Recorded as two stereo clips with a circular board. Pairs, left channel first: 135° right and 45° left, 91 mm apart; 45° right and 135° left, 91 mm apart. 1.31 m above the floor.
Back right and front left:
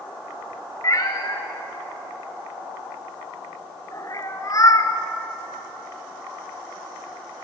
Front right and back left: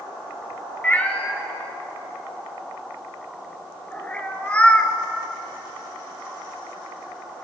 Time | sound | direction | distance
0.8 | a cat meowing | 115° right | 1.7 m